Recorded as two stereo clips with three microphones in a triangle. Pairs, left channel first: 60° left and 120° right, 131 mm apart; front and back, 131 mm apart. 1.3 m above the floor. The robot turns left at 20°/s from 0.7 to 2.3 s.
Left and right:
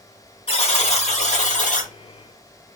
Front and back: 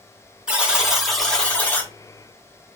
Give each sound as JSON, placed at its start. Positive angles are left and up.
{"t": 0.5, "sound": "a buzzer", "azimuth_deg": 95, "distance_m": 1.1}